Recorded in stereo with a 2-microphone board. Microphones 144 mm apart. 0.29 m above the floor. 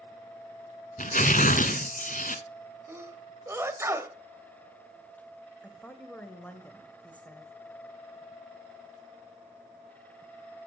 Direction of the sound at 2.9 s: 20° right (ahead or behind).